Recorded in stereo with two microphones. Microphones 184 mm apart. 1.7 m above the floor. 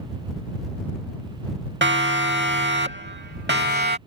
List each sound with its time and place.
1.8 s a siren: 80° right; by 4.0 s 65° right (ahead or behind)